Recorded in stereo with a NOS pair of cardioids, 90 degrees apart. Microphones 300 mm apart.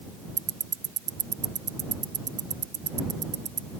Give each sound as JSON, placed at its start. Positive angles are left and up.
{"t": 0.4, "sound": "ticking", "azimuth_deg": -35}